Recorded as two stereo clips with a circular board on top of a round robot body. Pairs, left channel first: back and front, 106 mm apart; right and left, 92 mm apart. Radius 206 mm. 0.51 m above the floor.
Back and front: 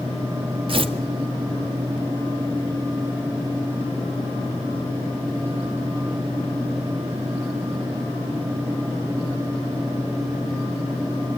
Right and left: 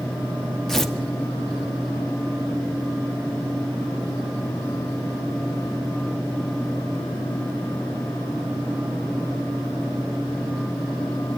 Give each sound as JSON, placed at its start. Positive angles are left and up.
{"t": 0.7, "sound": "tearing paper", "azimuth_deg": -5, "distance_m": 1.9}